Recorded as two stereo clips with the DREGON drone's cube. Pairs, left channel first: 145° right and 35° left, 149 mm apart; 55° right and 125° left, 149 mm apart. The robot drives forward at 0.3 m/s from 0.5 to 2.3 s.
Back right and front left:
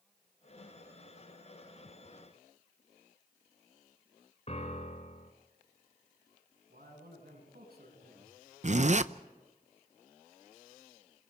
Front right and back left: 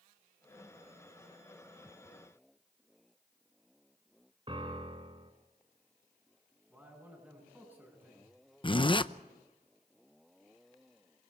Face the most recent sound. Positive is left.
turn(degrees=0)